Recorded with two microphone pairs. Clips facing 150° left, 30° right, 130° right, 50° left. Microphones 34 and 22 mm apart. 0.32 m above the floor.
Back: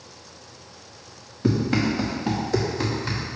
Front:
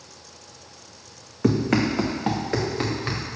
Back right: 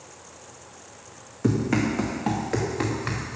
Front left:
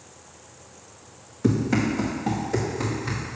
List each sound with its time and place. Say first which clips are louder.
1.4 s running footsteps: front 1 dB, front left 1 dB; 40° right, 1.7 m; by 3.2 s 90° right, 2.5 m